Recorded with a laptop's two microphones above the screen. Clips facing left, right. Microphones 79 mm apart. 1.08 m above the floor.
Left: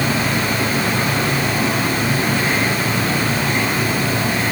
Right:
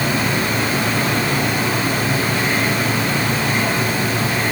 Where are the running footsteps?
No running footsteps in this recording.